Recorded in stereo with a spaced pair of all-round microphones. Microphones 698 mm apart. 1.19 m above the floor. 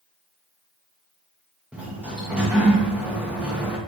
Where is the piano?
No piano in this recording.